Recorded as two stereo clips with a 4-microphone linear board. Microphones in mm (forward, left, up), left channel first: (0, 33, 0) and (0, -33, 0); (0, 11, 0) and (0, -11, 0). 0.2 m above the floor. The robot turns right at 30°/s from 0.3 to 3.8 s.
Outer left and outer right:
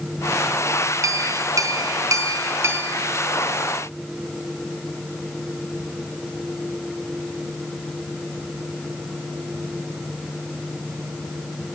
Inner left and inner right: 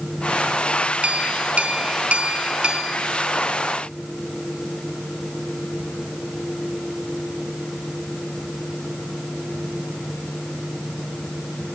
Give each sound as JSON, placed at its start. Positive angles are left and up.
{"t": 1.0, "sound": "a clink", "azimuth_deg": -105, "distance_m": 1.7}